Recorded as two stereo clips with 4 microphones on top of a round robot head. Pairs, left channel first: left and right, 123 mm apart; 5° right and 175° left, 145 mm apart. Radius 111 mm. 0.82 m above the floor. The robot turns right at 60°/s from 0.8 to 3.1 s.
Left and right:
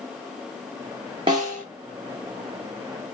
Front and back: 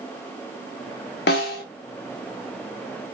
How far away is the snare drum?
About 0.5 m.